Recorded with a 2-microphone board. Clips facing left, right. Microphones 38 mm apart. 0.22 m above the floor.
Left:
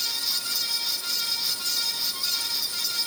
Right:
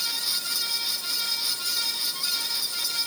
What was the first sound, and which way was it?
Only background noise.